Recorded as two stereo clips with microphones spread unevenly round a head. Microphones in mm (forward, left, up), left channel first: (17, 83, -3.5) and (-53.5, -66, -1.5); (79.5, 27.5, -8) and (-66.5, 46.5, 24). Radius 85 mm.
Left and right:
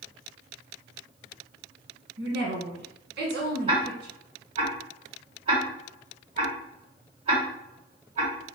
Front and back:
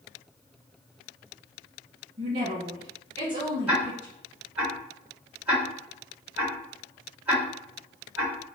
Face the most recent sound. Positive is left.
turn(degrees=-135)